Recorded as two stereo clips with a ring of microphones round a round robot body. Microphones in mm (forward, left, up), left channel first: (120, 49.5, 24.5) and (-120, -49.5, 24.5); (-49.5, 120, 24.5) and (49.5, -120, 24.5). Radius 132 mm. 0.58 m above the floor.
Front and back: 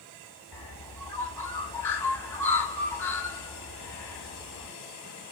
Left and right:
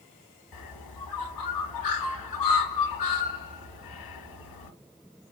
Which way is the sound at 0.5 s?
105° left.